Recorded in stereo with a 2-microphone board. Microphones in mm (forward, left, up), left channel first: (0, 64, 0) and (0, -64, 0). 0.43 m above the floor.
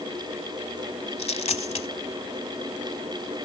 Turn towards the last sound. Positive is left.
turn(degrees=60)  # may be behind; listen again after turning